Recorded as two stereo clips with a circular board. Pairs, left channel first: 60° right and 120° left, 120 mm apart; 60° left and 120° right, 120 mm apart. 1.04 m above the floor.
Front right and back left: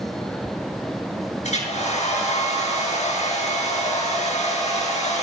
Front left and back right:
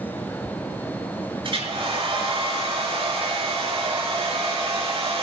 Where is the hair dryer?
75° right, 7 m.